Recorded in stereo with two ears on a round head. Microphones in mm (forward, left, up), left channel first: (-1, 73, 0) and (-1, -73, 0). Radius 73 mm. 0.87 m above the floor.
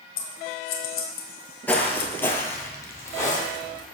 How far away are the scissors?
About 1.6 m.